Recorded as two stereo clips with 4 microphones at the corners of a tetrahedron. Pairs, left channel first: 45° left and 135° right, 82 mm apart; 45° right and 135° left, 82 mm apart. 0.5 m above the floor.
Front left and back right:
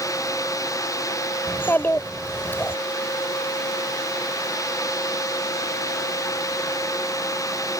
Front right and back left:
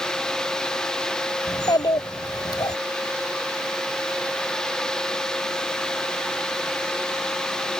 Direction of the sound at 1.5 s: 15° right.